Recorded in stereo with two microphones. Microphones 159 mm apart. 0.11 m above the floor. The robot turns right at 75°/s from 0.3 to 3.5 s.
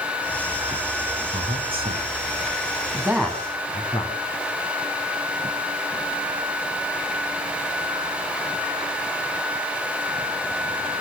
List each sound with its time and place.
1.3 s a man speaking: 40° right (ahead or behind), 7.5 m; by 4.1 s 25° left (ahead or behind), 7.5 m